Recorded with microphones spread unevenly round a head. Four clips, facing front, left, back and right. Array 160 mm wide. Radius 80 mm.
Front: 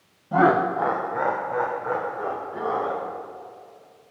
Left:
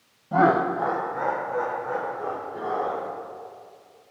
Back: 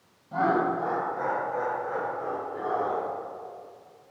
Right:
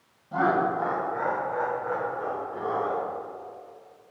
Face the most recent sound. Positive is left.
turn(degrees=5)